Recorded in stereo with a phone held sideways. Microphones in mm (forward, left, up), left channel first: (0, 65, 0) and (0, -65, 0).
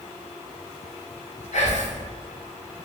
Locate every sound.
1.5 s whispering: 65° left (ahead or behind), 0.7 m